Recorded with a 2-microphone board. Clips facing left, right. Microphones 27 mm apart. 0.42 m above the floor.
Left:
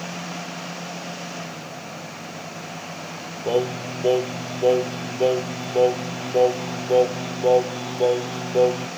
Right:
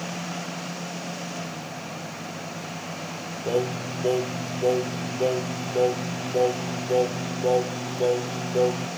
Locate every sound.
3.5 s singing: 30° left (ahead or behind), 1.1 m